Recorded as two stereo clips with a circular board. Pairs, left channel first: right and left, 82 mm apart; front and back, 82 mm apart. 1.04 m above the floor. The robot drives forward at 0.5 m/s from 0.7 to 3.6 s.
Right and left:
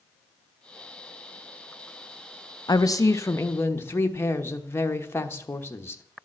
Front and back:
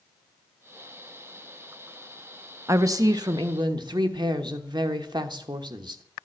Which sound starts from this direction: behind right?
A woman speaking, at 2.7 s.